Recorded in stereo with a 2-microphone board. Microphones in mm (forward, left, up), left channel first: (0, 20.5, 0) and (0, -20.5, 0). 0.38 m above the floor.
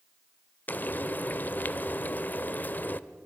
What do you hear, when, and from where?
0.7 s frying: 45° left (ahead or behind), 0.7 m